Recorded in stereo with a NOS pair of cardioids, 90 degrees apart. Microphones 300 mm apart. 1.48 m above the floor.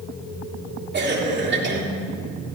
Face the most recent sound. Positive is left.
turn(degrees=-35)